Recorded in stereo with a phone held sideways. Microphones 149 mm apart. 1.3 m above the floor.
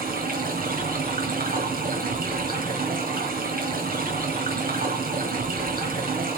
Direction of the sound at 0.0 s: 65° right (ahead or behind).